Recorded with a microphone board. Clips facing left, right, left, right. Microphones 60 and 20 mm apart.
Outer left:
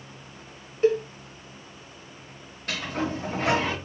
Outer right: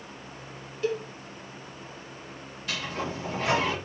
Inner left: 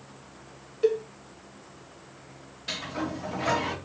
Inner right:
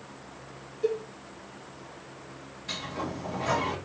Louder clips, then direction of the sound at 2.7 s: Outer left 3 dB, inner left 2 dB; 50° left (ahead or behind).